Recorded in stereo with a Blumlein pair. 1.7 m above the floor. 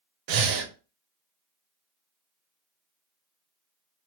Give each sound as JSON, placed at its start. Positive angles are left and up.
{"t": 0.3, "sound": "breathing", "azimuth_deg": -45, "distance_m": 0.6}